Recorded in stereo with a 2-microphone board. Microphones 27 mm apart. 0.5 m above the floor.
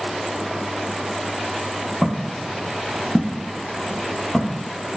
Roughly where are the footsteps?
Centre.